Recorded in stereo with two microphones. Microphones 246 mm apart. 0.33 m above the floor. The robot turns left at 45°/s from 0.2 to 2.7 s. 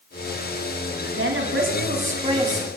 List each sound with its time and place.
1.2 s a woman speaking: 100° right, 2 m; by 2.7 s 170° right, 2 m